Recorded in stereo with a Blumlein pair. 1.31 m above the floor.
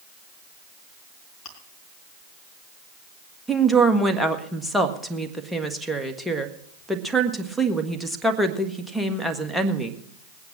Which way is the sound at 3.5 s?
Straight ahead.